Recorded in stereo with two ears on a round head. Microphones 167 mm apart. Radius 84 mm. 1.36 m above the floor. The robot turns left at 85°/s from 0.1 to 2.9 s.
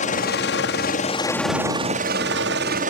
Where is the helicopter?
40° left (ahead or behind); by 2.9 s 40° right (ahead or behind).